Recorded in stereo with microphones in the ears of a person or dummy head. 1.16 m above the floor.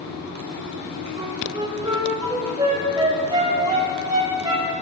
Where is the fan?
85° right, 1.6 m.